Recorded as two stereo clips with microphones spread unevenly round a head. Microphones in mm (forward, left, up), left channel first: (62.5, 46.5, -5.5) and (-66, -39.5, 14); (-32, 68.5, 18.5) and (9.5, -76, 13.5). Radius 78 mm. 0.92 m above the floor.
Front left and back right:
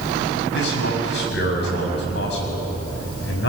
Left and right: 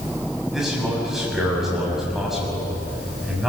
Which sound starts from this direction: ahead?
A man speaking, at 0.5 s.